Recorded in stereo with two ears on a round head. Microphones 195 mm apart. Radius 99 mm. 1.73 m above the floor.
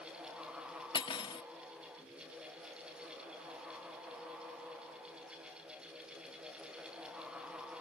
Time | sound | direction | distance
0.9 | cutlery clinking | 25° left (ahead or behind) | ?